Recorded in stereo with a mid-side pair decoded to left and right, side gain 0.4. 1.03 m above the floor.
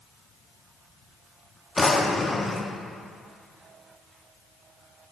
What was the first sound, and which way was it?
A drawer, 25° left.